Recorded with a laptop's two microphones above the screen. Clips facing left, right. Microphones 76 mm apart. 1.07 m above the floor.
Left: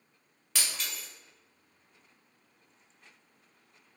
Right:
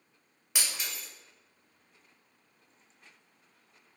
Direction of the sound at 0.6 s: 15° right (ahead or behind).